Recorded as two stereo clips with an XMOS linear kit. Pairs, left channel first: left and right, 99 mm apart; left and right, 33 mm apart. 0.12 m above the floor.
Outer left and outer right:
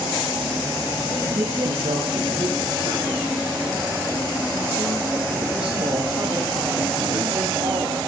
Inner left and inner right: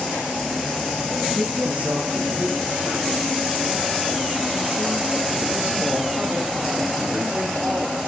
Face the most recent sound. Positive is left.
turn(degrees=-55)  # may be behind; listen again after turning